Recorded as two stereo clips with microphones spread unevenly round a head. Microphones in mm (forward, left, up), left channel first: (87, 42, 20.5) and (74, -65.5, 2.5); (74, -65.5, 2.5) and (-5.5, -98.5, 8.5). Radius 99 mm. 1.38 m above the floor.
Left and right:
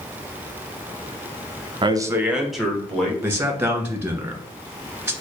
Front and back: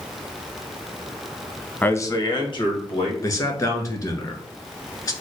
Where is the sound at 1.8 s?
50° right, 0.7 m; by 3.1 s 5° left, 1.9 m.